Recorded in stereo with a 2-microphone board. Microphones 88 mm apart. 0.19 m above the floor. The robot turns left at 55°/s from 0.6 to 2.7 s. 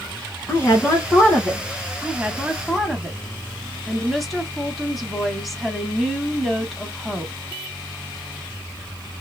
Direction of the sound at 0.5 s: 55° left.